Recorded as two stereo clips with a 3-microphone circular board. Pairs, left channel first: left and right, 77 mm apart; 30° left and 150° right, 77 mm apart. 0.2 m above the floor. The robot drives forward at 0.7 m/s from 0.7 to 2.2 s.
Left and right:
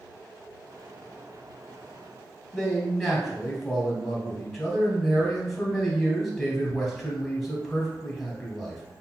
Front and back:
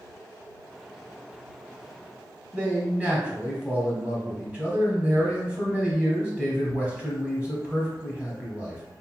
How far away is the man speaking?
About 1.3 m.